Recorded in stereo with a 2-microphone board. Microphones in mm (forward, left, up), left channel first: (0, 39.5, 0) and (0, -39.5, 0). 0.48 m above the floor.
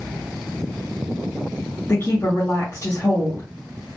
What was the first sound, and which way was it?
A woman speaking, 35° left (ahead or behind).